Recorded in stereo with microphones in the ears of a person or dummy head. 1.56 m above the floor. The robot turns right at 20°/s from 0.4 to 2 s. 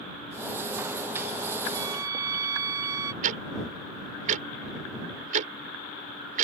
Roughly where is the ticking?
Right.